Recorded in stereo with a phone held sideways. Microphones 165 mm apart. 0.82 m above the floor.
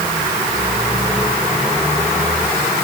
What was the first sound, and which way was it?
Only background noise.